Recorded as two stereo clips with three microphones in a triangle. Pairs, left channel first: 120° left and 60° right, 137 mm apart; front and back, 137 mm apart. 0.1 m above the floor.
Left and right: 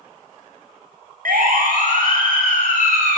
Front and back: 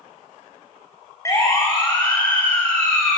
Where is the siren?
70° right, 5 m; by 3.2 s 85° right, 7 m.